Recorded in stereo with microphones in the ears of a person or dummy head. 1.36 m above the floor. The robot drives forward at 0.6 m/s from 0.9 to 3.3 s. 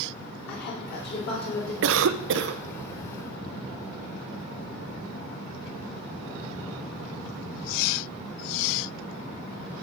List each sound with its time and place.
0.5 s a woman speaking: 55° left (ahead or behind), 3.5 m; by 1.7 s 50° left (ahead or behind), 3.5 m
1.8 s a cough: 70° right (ahead or behind), 0.6 m; by 2.6 s 60° right (ahead or behind), 0.6 m